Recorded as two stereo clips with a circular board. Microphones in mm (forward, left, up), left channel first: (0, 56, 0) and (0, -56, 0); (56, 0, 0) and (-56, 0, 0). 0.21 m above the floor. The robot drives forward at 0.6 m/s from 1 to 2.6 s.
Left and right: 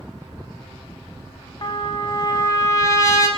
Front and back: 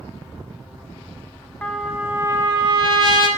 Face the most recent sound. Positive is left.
turn(degrees=145)